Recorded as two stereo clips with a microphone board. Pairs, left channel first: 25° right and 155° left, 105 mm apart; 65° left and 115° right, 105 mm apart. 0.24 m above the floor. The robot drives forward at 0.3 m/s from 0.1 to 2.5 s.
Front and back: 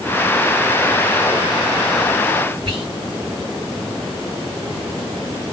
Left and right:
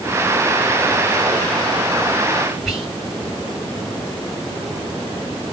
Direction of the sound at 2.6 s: 165° left.